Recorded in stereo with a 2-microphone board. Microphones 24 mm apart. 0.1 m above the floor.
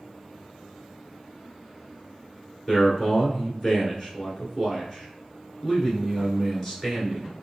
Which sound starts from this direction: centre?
A man speaking, at 2.7 s.